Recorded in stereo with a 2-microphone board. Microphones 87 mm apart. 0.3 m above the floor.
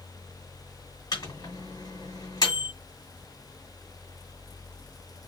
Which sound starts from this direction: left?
A microwave, at 1.1 s.